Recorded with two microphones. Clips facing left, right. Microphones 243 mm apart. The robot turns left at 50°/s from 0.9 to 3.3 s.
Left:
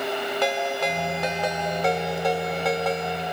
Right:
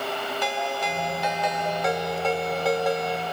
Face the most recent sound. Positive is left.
turn(degrees=-35)